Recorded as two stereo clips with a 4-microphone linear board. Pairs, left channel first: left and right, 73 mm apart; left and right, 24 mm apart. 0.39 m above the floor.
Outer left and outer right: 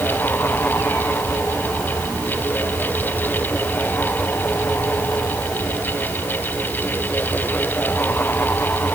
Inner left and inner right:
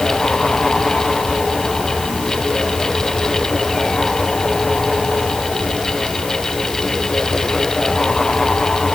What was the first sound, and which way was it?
Only background noise.